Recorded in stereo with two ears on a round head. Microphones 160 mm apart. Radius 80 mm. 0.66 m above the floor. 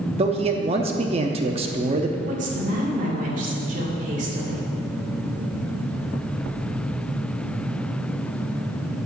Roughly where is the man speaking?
Right.